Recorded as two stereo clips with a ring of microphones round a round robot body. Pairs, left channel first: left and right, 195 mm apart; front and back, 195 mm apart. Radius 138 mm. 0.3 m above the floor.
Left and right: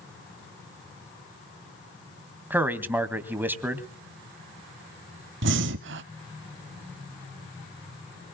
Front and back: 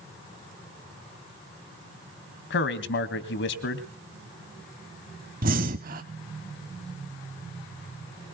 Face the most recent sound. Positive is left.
turn(degrees=-125)